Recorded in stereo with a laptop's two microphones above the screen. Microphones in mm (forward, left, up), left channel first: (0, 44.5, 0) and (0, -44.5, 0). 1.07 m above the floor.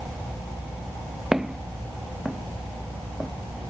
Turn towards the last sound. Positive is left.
turn(degrees=-10)  # may be behind; listen again after turning